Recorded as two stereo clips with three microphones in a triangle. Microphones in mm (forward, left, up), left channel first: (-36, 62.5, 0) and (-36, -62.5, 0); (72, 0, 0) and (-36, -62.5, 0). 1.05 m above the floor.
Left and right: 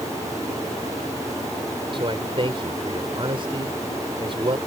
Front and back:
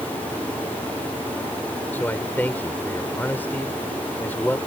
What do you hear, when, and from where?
1.9 s a man speaking: 45° right